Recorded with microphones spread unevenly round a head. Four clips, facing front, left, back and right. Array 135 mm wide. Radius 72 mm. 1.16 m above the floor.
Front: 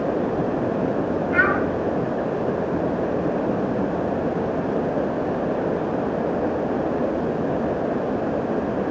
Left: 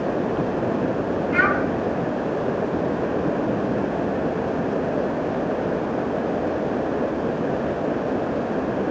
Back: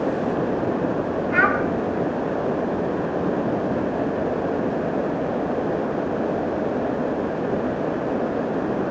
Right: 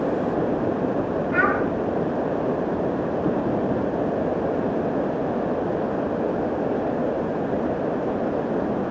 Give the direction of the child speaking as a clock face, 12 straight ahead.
6 o'clock.